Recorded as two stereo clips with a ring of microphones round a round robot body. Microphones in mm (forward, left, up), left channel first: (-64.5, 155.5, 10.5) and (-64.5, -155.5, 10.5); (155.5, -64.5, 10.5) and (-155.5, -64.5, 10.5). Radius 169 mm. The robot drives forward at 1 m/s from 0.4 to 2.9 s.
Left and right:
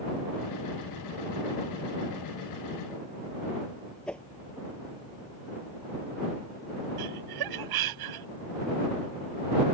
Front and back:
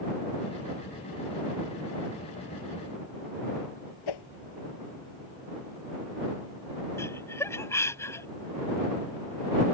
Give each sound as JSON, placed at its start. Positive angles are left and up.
{"t": 4.1, "sound": "a whoosh", "azimuth_deg": 5}
{"t": 7.0, "sound": "laughter", "azimuth_deg": -80}